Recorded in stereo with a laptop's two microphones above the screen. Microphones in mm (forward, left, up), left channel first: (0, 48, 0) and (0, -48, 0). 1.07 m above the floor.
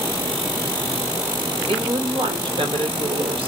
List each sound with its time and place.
1.7 s a woman speaking: 65° right (ahead or behind), 1.0 m